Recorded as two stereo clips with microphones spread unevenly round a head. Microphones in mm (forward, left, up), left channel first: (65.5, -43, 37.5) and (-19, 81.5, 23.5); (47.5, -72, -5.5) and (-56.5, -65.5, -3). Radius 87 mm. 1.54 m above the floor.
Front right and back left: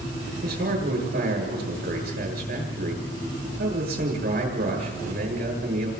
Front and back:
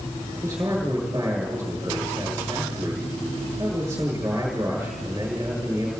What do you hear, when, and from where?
0.4 s a man speaking: 100° left, 7.5 m